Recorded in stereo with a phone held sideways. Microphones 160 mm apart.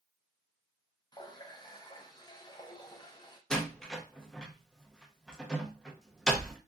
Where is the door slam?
5° left (ahead or behind), 0.6 m.